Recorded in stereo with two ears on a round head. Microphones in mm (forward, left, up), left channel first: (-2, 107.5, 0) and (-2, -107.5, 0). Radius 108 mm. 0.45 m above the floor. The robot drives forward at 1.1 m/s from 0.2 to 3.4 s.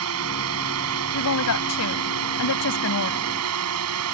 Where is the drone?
60° right (ahead or behind); by 4.2 s 65° right (ahead or behind).